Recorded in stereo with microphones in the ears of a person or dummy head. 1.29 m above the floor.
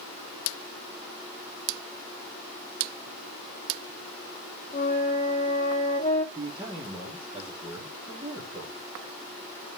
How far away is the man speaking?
About 3 m.